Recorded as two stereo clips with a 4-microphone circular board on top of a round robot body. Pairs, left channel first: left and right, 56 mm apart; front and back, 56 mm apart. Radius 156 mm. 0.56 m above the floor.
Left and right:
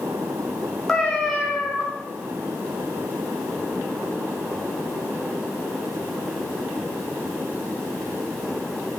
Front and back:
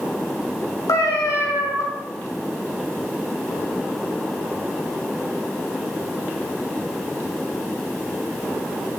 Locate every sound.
0.9 s a cat meowing: 5° left, 1.9 m